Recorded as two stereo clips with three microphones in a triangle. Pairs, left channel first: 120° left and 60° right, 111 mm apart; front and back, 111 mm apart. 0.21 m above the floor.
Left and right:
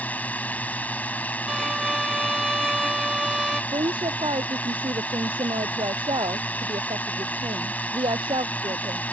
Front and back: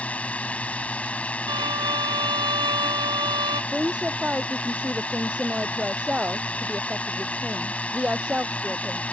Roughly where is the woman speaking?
Right.